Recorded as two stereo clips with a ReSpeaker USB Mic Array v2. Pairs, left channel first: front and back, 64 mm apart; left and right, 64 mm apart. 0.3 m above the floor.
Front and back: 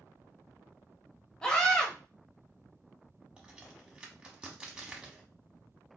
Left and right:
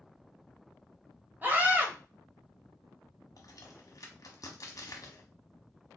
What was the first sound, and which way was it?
A scream, 65° right.